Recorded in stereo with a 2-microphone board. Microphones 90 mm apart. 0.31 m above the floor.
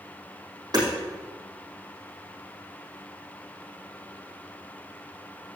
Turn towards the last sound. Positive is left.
turn(degrees=-45)  # may be behind; listen again after turning